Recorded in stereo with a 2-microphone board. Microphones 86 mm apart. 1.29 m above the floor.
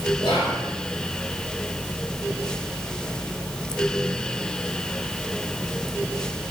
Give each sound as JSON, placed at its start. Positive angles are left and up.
{"t": 0.2, "sound": "whispering", "side_deg": 65, "distance_m": 3.0}